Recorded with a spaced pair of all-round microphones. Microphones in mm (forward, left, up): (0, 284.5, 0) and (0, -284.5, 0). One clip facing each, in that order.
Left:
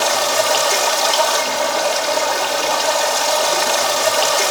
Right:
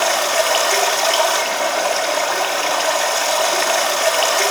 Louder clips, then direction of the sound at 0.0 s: Left 1 dB; 65° left (ahead or behind).